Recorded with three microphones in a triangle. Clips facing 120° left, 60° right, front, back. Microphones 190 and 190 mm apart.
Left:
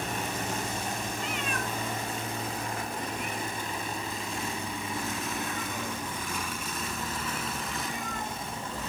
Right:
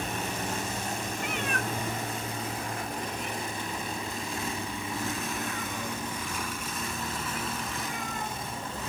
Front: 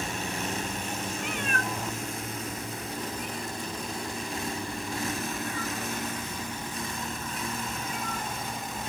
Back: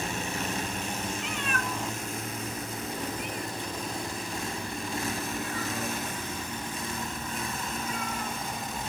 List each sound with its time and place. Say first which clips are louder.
1.2 s a cat meowing: right 1 dB, front 1 dB; 25° right, 0.8 m; by 8.9 s 170° right, 7.5 m